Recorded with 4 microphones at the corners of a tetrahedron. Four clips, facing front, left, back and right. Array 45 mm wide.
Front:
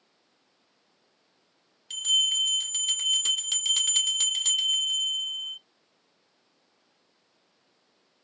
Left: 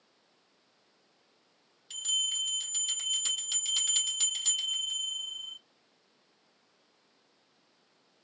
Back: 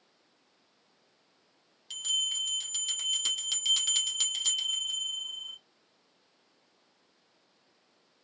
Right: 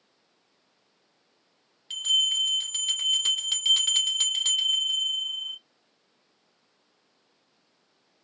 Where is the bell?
70° right, 0.8 m.